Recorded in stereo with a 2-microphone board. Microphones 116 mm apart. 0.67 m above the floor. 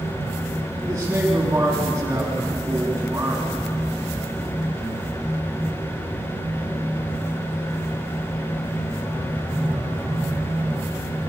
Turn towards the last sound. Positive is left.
turn(degrees=-20)  # may be behind; listen again after turning